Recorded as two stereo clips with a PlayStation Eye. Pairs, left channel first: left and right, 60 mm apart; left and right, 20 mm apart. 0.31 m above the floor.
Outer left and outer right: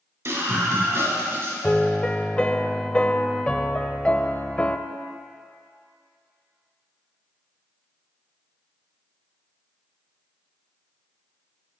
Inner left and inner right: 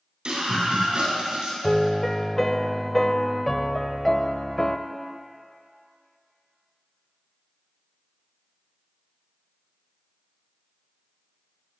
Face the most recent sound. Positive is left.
turn(degrees=15)  # may be behind; listen again after turning